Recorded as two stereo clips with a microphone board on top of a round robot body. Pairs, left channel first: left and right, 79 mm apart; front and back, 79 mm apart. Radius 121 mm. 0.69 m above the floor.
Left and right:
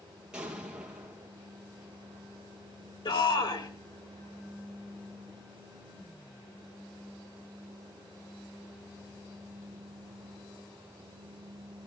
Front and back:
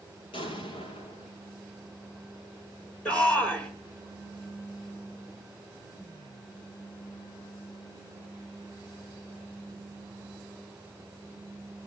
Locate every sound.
0.3 s an explosion: 10° right, 4 m
3.0 s a shout: 75° left, 4.5 m